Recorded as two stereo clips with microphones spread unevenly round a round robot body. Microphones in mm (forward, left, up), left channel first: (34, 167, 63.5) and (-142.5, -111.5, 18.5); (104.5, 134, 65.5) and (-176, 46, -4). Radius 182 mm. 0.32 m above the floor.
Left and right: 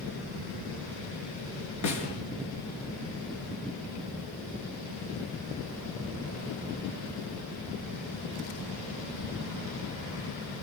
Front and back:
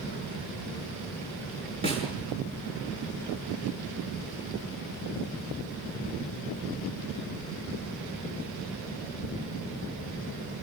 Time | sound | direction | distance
1.8 | a snare drum | 90° left | 6 m